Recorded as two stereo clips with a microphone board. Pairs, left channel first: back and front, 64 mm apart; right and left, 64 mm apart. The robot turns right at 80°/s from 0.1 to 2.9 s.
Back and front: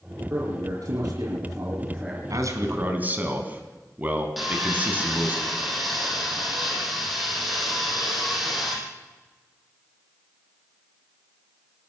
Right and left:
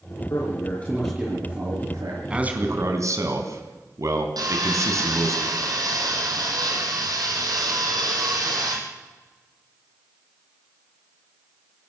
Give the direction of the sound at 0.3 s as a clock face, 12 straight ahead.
2 o'clock.